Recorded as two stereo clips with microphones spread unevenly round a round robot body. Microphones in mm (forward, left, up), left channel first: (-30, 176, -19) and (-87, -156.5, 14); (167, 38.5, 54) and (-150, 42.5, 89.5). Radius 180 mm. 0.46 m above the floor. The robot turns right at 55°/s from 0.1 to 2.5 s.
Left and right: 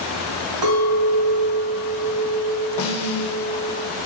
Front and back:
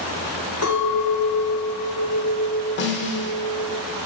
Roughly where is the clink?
Ahead right.